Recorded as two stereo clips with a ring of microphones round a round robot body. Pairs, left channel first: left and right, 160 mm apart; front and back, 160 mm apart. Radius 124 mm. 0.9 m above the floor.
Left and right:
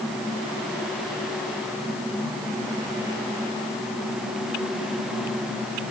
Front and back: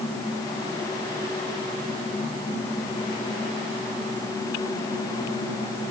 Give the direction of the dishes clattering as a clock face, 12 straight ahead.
No dishes clattering in this recording.